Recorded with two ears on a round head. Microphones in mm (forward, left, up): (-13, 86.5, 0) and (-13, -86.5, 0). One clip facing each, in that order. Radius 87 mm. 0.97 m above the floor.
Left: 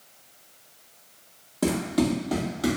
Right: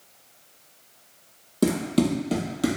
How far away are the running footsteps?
About 1.3 m.